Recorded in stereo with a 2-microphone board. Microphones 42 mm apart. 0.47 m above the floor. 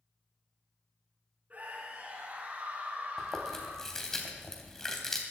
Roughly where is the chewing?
Centre.